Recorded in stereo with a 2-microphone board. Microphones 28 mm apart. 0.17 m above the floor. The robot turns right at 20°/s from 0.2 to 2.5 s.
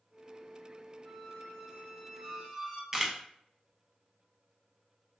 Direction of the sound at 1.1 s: 10° left (ahead or behind).